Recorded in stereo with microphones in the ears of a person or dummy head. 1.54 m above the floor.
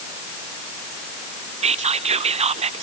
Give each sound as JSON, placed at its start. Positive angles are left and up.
{"t": 1.6, "sound": "whispering", "side_deg": -35, "distance_m": 0.7}